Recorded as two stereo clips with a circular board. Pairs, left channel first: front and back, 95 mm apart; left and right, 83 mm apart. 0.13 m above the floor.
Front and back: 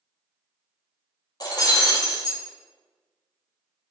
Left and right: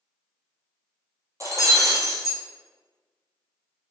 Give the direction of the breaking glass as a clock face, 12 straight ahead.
1 o'clock.